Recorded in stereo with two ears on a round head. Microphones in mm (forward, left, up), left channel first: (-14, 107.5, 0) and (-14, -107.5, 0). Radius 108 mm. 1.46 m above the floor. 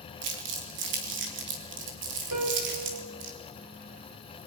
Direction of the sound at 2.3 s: 65° right (ahead or behind).